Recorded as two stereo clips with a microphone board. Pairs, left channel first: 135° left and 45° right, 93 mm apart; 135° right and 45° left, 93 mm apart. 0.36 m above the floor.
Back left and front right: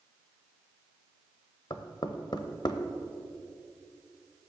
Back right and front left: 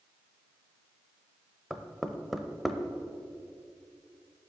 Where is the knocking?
135° left, 0.8 m.